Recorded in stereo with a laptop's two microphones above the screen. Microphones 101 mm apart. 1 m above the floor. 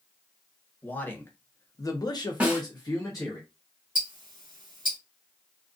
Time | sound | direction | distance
0.8 | a man speaking | 20° left (ahead or behind) | 1.0 m
2.4 | a snare drum | 15° right (ahead or behind) | 1.3 m
4.0 | ticking | 60° right (ahead or behind) | 1.4 m